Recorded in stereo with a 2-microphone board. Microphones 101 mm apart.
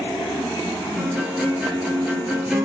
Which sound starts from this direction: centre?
A guitar, at 1.0 s.